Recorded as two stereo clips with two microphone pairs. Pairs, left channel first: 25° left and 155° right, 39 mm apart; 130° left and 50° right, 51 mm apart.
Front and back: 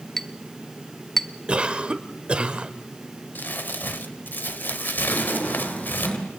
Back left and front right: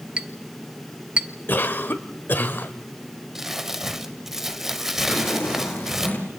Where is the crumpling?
30° left, 1.1 m.